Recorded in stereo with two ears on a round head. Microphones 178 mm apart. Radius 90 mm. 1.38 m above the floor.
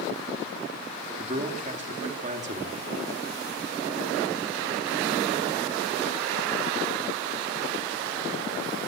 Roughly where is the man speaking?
Right.